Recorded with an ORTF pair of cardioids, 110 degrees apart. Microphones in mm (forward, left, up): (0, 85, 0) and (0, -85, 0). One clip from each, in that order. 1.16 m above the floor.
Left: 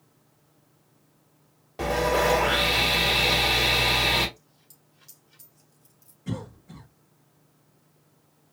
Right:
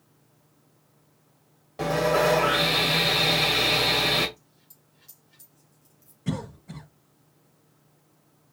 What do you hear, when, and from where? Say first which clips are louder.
1.8 s sawing: right 1 dB; 10° left, 2 m
4.4 s a dropped coin: left 1 dB; 20° left, 3 m
6.3 s a cough: right 3 dB; 30° right, 1.0 m